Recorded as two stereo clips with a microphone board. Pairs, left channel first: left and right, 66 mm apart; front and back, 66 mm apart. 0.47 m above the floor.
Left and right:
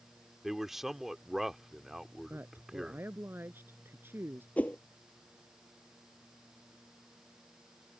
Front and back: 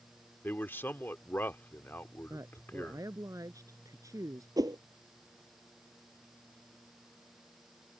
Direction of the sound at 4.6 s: 160° left.